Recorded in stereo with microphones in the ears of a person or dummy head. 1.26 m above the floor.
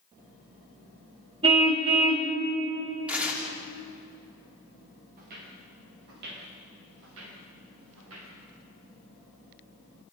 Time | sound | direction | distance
1.4 | a car horn | 35° right (ahead or behind) | 2.5 m
3.1 | tearing paper | 10° right (ahead or behind) | 3.5 m
5.2 | footsteps | 55° right (ahead or behind) | 7.5 m